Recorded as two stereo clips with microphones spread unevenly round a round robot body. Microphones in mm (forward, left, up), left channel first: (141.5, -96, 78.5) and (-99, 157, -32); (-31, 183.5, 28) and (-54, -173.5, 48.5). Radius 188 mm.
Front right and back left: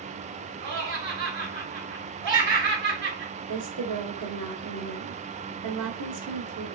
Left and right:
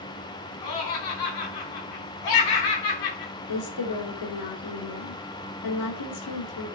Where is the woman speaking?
105° left, 2.5 m.